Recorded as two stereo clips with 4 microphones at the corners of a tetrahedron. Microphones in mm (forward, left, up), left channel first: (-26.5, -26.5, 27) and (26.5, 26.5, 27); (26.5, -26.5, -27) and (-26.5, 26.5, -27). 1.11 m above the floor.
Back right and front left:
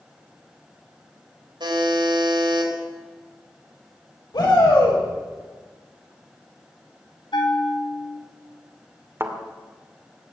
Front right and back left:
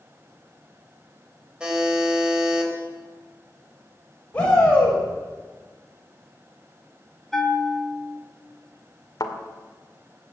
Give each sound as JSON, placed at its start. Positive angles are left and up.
{"t": 1.6, "sound": "a buzzer", "azimuth_deg": 55, "distance_m": 4.0}
{"t": 4.3, "sound": "a shout", "azimuth_deg": -120, "distance_m": 6.0}
{"t": 7.3, "sound": "a bell", "azimuth_deg": -135, "distance_m": 2.5}
{"t": 9.2, "sound": "a thud", "azimuth_deg": -10, "distance_m": 1.9}